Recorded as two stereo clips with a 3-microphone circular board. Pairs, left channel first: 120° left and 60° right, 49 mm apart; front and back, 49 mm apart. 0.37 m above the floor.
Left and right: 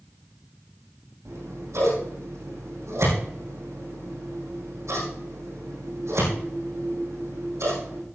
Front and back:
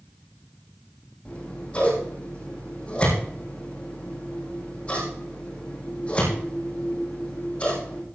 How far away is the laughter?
No laughter in this recording.